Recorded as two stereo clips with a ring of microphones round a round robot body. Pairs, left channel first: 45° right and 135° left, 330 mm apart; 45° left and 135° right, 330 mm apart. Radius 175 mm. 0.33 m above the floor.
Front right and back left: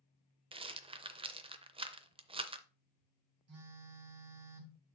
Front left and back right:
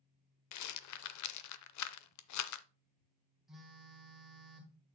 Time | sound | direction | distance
0.5 | a rattle | 65° left | 0.6 m
3.5 | a phone buzzing | 135° left | 1.6 m